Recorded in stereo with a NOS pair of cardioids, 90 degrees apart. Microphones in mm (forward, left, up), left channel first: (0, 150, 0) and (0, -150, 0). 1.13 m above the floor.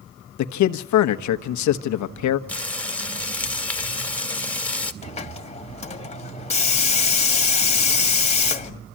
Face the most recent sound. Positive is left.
turn(degrees=20)